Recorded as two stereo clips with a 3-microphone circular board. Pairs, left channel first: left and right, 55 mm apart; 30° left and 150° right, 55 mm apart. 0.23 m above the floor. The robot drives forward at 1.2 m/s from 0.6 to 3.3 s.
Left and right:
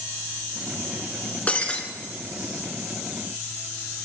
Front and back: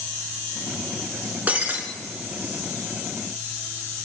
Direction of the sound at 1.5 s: 150° left.